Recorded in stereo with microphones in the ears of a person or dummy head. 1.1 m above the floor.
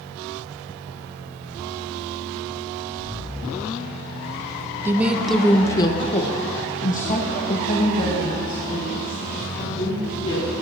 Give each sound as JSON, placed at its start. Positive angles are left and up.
{"t": 4.8, "sound": "a woman speaking", "side_deg": -10, "distance_m": 0.7}